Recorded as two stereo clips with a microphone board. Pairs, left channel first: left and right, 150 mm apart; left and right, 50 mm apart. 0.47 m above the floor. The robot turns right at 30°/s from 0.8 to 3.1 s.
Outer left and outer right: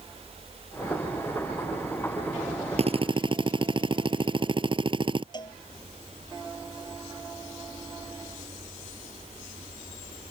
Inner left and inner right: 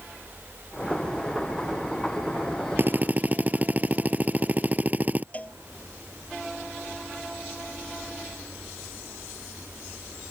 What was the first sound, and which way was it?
A drill, 45° right (ahead or behind).